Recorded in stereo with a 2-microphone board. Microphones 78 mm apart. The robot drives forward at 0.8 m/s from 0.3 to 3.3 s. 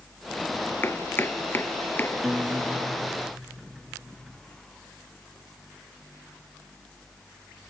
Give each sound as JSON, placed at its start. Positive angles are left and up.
{"t": 0.8, "sound": "chopping", "side_deg": 30}
{"t": 2.2, "sound": "a guitar", "side_deg": -5}